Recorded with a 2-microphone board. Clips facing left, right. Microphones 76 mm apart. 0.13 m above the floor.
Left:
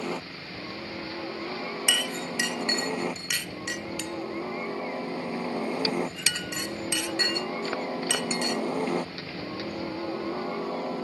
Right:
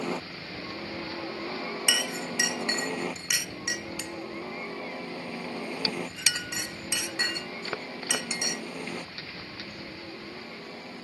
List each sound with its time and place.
0.0 s a helicopter: centre (ahead or behind); by 11.0 s 50° left (ahead or behind)
1.9 s a clink: 10° right (ahead or behind)